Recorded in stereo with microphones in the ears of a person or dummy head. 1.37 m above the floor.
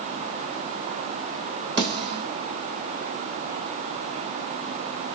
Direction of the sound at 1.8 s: 25° right (ahead or behind).